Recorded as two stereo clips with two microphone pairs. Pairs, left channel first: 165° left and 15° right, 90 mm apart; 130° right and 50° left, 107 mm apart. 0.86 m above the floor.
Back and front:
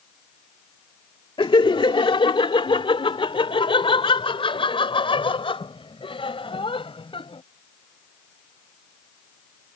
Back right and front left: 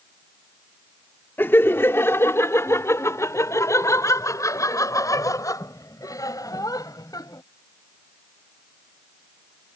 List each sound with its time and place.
1.4 s laughter: 160° left; by 7.4 s 175° left